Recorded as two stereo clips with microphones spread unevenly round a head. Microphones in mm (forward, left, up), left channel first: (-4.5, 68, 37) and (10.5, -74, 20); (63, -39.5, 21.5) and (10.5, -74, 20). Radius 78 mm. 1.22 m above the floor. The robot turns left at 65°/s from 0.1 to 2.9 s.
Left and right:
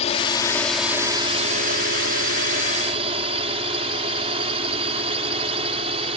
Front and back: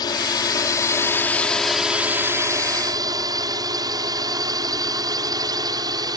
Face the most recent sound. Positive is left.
turn(degrees=-135)